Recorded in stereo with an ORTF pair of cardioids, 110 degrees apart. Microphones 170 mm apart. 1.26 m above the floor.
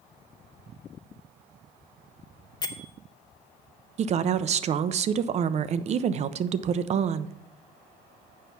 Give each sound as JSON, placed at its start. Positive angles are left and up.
{"t": 2.6, "sound": "a bell", "azimuth_deg": 25, "distance_m": 0.6}
{"t": 4.0, "sound": "a woman speaking", "azimuth_deg": -45, "distance_m": 0.5}